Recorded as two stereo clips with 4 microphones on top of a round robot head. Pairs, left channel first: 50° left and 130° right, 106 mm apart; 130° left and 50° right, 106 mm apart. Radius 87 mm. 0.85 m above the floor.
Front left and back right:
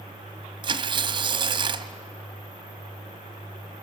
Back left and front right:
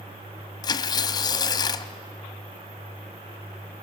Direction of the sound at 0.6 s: 175° right.